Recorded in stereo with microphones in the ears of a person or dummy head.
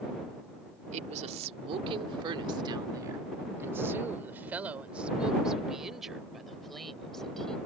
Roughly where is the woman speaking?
Right.